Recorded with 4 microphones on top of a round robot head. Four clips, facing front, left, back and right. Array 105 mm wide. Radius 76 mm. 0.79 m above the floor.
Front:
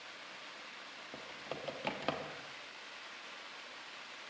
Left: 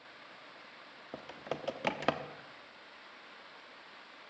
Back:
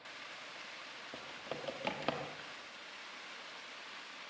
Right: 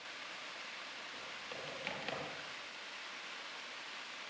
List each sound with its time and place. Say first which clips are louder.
1.1 s typing on a keyboard: left 11 dB, even; 90° left, 1.2 m